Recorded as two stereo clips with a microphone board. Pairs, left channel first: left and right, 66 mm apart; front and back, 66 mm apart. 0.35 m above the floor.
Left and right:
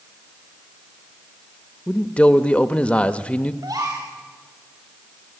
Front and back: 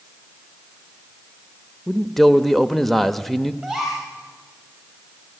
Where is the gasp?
90° right, 7.5 m.